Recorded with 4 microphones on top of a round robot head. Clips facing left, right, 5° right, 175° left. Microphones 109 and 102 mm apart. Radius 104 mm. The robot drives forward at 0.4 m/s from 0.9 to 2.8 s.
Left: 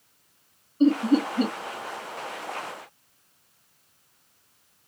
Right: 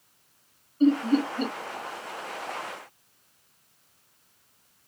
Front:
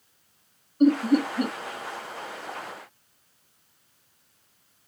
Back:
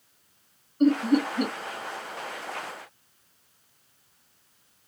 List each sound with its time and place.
0.8 s laughter: 70° left, 0.8 m; by 1.5 s 110° left, 0.8 m